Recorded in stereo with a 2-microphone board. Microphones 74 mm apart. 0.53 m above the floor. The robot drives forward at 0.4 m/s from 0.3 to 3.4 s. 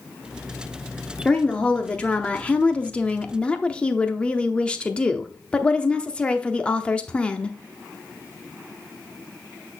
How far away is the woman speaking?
About 0.8 m.